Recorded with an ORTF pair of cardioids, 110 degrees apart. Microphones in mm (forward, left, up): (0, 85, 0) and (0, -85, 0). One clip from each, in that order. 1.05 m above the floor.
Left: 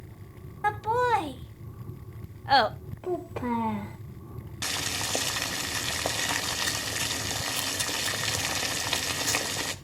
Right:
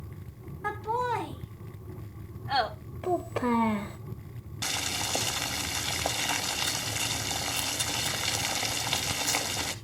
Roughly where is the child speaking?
Ahead.